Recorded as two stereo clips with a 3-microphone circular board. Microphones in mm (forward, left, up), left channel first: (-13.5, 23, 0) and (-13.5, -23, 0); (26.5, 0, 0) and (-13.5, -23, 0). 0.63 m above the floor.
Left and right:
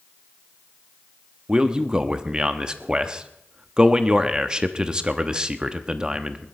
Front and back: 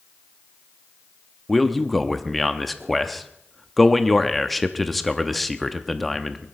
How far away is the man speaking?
About 0.9 m.